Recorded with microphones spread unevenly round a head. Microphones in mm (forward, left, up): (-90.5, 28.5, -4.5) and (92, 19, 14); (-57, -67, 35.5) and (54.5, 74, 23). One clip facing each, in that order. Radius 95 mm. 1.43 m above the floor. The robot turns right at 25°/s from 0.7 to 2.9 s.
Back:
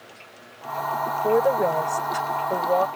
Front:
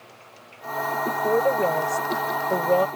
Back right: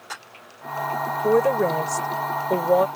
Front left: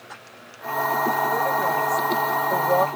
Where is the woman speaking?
105° right; by 2.9 s 65° right.